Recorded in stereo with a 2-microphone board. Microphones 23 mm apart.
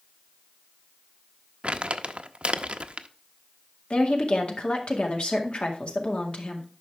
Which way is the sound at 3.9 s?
60° left (ahead or behind).